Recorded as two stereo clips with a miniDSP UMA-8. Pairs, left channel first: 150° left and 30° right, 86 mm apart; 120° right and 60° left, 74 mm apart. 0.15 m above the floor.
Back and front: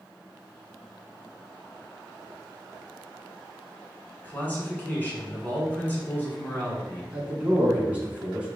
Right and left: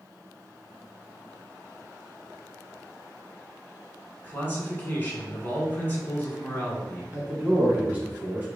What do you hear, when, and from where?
4.2 s a man speaking: 160° right, 1.1 m
7.1 s a man speaking: 25° left, 1.4 m